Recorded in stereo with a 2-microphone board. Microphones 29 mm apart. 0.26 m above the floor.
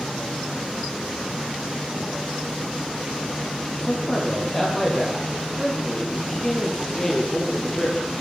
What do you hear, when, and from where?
3.7 s a man speaking: 15° left (ahead or behind), 7.5 m